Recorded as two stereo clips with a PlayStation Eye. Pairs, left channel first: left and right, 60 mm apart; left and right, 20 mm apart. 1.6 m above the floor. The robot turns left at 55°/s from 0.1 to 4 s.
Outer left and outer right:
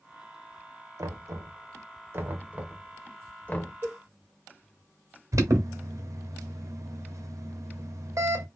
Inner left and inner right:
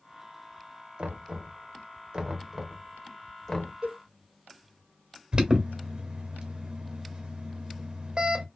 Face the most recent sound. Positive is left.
turn(degrees=-55)  # may be behind; listen again after turning